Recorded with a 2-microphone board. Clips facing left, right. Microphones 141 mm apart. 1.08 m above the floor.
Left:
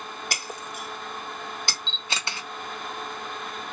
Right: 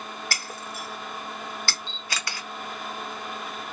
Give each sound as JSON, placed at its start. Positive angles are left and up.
{"t": 0.3, "sound": "breaking glass", "side_deg": 20, "distance_m": 0.8}
{"t": 1.9, "sound": "a camera shutter", "side_deg": 25, "distance_m": 0.9}